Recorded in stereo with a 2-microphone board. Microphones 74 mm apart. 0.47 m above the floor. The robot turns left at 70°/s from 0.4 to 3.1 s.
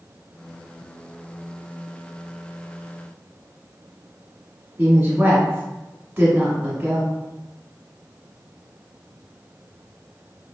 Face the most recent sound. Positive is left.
turn(degrees=-20)  # may be behind; listen again after turning